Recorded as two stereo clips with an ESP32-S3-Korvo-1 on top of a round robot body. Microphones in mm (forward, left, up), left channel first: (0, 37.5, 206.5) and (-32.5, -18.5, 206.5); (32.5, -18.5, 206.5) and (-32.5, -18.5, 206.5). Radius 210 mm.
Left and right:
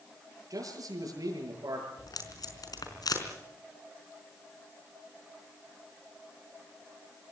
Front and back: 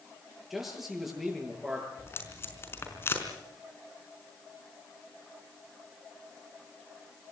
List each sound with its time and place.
0.5 s a man speaking: 95° right, 7.5 m
2.0 s tape being pulled: 50° left, 4.5 m